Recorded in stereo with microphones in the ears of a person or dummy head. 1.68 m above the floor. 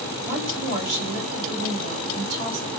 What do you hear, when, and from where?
0.2 s a woman speaking: 55° right (ahead or behind), 6 m